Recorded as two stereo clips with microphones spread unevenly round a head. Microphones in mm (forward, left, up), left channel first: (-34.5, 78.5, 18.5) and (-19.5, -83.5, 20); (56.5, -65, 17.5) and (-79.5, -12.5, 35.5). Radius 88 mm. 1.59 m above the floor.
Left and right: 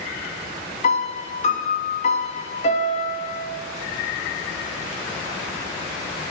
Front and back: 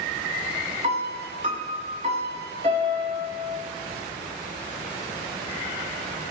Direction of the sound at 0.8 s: 125° left.